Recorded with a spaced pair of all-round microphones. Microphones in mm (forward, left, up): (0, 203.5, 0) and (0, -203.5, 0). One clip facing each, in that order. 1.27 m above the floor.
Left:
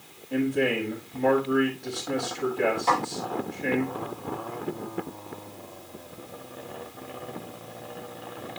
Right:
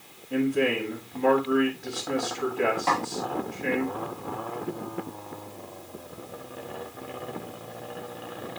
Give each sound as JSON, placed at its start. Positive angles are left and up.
{"t": 0.3, "sound": "a man speaking", "side_deg": -20, "distance_m": 5.0}
{"t": 2.9, "sound": "a snare drum", "side_deg": -75, "distance_m": 5.0}